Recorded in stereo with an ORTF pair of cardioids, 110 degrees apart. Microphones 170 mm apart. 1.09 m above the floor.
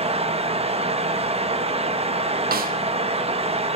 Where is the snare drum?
60° right, 1.1 m.